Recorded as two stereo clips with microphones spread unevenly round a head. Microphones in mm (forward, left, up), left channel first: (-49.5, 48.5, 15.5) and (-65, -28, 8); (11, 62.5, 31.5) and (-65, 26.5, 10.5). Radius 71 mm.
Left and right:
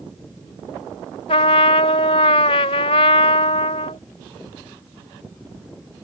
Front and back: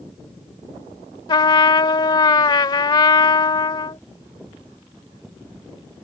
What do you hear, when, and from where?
1.3 s a trumpet: 55° left